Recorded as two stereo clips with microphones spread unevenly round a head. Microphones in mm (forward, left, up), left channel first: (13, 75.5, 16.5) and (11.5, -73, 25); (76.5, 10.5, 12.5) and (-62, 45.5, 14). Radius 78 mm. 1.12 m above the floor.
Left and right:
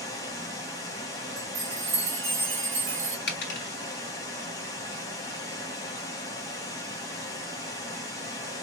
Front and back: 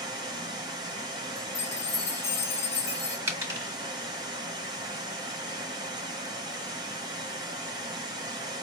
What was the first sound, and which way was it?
Running water, 145° left.